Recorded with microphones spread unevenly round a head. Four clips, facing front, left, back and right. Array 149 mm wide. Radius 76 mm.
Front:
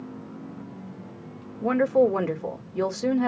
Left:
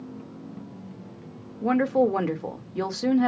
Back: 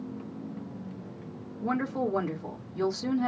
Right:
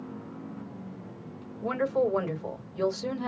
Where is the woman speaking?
50° left, 1.9 m.